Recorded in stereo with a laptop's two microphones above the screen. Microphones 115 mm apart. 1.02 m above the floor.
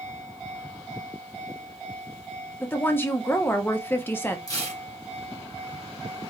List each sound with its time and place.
2.6 s a woman speaking: 15° left (ahead or behind), 0.7 m
4.5 s tearing paper: 30° left (ahead or behind), 2.5 m